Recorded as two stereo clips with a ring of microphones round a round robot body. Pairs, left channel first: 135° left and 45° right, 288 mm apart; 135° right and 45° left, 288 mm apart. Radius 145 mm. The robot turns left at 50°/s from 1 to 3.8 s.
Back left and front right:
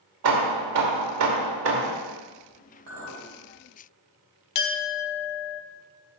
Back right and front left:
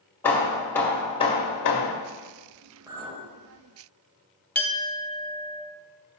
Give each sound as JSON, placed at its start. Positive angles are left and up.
{"t": 0.2, "sound": "hammering", "azimuth_deg": -55, "distance_m": 1.3}
{"t": 2.9, "sound": "a clink", "azimuth_deg": -30, "distance_m": 2.5}
{"t": 4.5, "sound": "a clink", "azimuth_deg": 140, "distance_m": 0.9}